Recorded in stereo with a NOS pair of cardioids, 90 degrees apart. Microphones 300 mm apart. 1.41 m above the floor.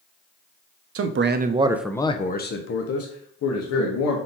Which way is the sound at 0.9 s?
50° right.